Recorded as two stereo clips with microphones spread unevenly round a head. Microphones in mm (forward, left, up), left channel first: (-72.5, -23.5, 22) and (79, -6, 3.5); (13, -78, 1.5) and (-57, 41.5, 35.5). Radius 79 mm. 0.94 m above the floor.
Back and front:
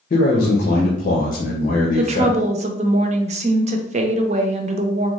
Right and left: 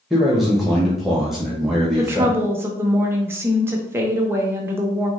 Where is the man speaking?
145° right, 0.9 m.